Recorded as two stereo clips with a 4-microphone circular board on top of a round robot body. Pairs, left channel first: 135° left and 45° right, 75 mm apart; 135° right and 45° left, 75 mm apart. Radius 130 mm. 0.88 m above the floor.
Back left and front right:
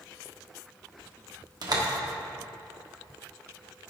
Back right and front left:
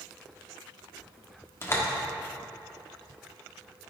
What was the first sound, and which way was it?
A door slam, 75° right.